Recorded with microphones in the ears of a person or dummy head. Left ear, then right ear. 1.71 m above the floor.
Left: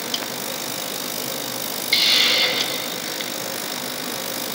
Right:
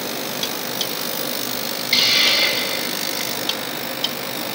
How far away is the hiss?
About 0.7 m.